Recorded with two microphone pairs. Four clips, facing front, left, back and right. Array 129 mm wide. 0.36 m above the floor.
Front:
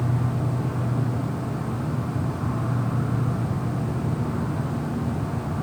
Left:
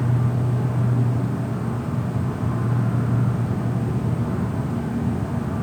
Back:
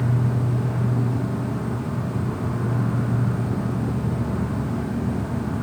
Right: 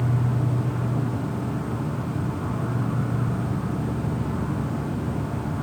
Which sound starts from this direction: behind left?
An insect, at 0.0 s.